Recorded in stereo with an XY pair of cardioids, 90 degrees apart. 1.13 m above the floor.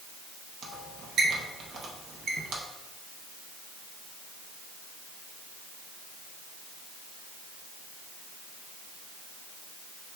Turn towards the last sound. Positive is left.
turn(degrees=-70)